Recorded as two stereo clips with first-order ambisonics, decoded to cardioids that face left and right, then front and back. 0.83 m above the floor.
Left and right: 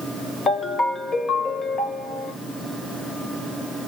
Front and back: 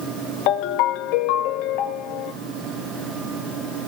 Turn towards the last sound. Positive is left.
turn(degrees=20)